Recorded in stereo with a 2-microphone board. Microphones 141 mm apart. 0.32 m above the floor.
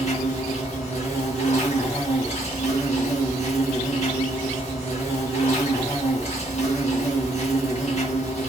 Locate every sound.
0.0 s an insect: 55° left (ahead or behind), 1.8 m